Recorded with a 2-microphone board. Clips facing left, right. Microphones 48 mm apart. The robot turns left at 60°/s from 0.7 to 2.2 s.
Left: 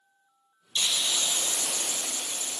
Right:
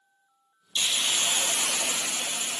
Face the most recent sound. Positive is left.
turn(degrees=-110)